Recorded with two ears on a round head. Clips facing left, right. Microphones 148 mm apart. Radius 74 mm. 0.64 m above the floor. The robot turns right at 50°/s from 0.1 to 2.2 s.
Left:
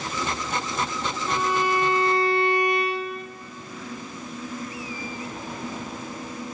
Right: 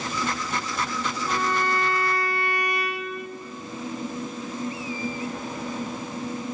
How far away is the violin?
About 0.5 m.